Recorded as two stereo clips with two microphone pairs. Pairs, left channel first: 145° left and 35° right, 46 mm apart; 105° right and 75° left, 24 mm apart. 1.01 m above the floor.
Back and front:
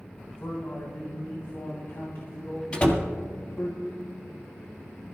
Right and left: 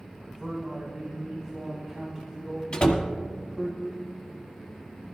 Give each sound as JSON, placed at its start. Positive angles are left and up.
{"t": 0.3, "sound": "a man speaking", "azimuth_deg": 140, "distance_m": 3.0}
{"t": 2.7, "sound": "a door slam", "azimuth_deg": -150, "distance_m": 1.7}